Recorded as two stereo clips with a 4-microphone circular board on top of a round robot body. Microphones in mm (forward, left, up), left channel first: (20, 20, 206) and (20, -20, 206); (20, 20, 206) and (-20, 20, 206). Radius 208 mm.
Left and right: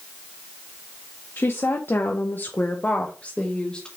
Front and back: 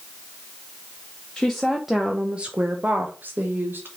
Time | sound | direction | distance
1.4 | a woman speaking | 80° left | 1.1 m